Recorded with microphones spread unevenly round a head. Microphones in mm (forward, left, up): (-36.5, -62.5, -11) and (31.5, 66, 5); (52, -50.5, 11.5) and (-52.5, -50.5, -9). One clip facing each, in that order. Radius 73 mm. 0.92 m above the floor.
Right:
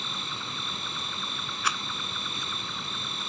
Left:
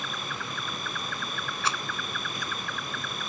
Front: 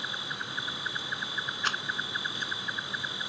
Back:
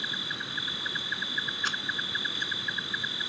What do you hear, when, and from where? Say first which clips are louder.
0.0 s an insect: left 2 dB, even; 175° left
1.6 s a rattle: left 1 dB, front 3 dB; 5° left